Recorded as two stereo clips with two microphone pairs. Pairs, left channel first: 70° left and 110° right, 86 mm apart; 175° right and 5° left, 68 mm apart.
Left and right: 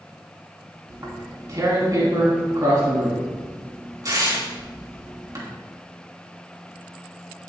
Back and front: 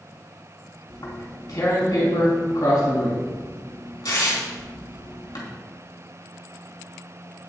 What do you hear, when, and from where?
0.9 s tearing paper: 155° right, 3 m